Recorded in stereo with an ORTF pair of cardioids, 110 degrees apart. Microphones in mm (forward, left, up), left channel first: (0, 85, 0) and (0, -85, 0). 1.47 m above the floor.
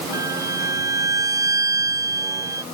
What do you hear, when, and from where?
0.1 s a violin: 20° right